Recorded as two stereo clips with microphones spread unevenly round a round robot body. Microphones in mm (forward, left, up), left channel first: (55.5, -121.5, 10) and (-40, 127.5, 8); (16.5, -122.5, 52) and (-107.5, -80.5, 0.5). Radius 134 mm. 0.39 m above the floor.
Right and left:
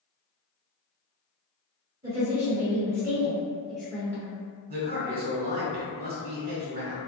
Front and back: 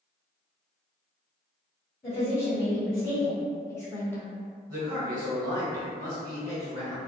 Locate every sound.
2.0 s a woman speaking: 50° left, 1.6 m; by 4.3 s 135° right, 1.3 m
4.7 s a man speaking: 135° left, 1.5 m